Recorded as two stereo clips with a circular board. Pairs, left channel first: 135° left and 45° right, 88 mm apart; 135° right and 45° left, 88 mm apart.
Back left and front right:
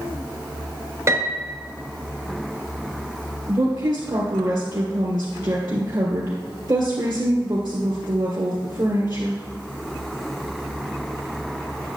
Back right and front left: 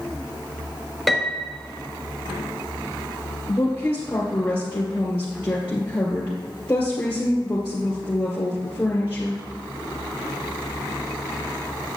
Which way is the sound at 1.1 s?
45° right.